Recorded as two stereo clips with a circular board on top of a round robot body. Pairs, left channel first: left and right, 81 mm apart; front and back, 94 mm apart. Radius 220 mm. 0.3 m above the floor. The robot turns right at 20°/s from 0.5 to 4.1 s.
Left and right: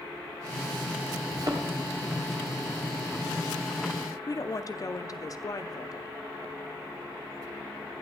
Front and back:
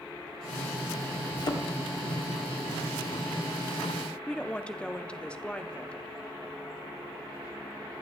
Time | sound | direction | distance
1.3 | a thud | 50° right | 2 m
4.3 | a woman speaking | 75° left | 1.2 m